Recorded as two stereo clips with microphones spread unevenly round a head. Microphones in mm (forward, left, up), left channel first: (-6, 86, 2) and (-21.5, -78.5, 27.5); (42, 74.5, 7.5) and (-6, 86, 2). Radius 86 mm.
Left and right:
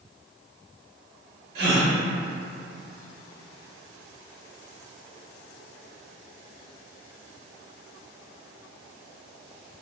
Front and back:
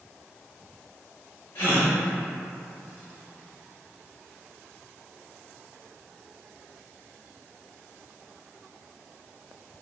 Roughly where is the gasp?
Right.